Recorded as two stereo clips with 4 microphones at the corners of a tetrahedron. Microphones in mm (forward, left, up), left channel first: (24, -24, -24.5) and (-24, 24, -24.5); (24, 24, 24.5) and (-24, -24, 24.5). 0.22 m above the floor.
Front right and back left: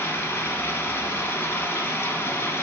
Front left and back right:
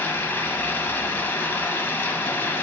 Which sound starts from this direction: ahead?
Running water, at 0.0 s.